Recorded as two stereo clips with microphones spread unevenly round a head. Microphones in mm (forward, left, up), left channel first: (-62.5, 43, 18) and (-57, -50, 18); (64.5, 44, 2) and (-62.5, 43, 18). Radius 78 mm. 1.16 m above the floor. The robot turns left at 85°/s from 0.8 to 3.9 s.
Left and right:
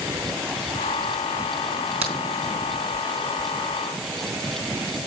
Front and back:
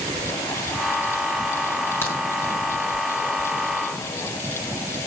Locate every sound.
2.0 s a crack: 80° right, 4 m; by 2.2 s 90° right, 4 m